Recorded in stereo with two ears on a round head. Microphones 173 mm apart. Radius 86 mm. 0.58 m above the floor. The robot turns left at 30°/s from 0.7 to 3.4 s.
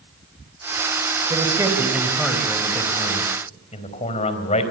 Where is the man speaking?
155° right, 3.5 m; by 4.7 s 145° left, 3.5 m.